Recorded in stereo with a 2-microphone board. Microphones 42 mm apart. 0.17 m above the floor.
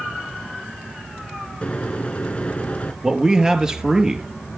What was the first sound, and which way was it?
A microwave, 30° left (ahead or behind).